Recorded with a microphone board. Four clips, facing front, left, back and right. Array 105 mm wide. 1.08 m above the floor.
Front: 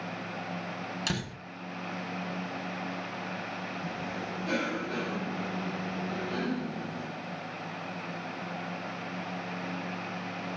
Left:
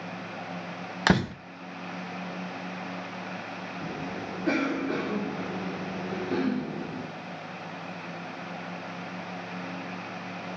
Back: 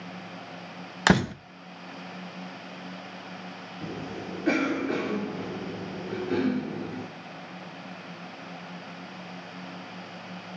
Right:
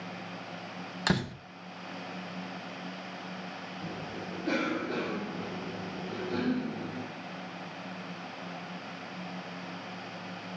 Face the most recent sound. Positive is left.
turn(degrees=150)